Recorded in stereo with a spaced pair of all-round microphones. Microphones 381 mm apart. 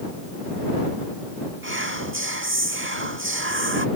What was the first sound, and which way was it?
Whispering, 30° right (ahead or behind).